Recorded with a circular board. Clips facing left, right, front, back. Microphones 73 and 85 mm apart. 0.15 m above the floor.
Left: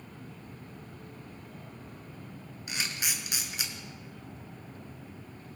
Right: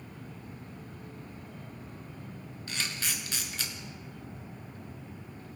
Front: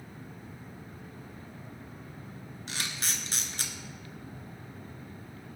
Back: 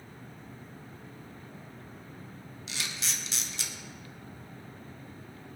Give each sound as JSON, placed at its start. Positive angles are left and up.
{"t": 2.7, "sound": "a camera shutter", "azimuth_deg": 20, "distance_m": 1.9}